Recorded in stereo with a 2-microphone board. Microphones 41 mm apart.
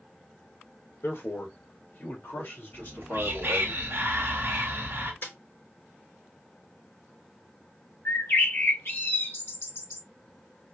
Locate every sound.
1.0 s a man speaking: 60° left (ahead or behind), 1.8 m; by 3.7 s 55° left (ahead or behind), 3.5 m
2.7 s whispering: 70° right (ahead or behind), 1.1 m
5.2 s a snare drum: 50° left (ahead or behind), 3.5 m
8.1 s a bird: 70° left (ahead or behind), 3 m